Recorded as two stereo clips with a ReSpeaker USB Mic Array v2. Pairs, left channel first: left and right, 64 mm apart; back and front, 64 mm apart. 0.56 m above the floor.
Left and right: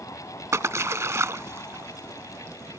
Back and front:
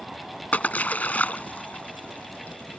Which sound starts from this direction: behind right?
A splash, at 0.5 s.